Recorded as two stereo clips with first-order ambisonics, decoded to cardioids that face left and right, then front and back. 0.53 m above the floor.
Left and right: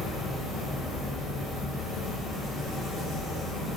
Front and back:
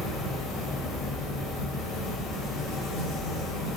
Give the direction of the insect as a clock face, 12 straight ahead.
11 o'clock.